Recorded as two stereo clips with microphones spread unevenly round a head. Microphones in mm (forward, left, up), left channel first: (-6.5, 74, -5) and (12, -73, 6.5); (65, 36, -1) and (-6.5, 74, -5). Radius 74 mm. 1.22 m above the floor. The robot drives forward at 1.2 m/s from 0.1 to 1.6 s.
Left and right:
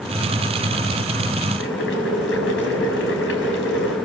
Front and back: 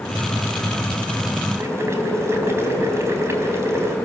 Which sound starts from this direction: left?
Boiling, at 1.6 s.